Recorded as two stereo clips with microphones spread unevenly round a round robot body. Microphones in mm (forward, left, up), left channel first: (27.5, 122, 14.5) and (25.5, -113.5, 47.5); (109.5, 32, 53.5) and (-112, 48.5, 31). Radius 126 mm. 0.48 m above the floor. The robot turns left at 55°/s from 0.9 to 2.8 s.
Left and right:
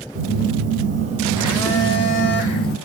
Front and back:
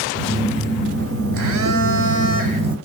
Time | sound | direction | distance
0.1 | a phone buzzing | 150° right | 0.6 m